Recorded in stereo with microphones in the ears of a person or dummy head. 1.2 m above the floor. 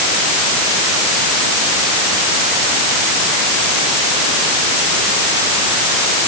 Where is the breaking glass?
I don't hear breaking glass.